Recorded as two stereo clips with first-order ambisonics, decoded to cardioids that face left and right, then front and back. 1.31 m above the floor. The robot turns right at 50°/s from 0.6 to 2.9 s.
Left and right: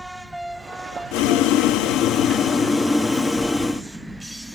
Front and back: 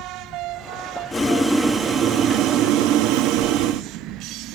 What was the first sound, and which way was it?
Boiling, 80° left.